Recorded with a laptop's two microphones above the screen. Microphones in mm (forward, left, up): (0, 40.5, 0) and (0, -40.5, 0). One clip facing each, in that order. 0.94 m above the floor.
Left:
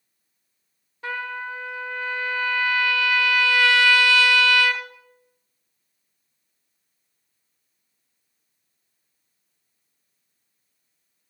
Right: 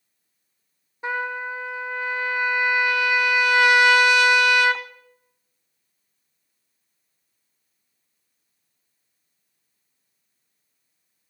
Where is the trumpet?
20° right (ahead or behind), 0.5 m.